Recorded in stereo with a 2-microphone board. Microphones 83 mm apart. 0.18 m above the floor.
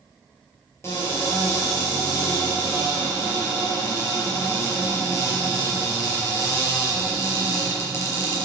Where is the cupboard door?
35° left (ahead or behind), 4 m.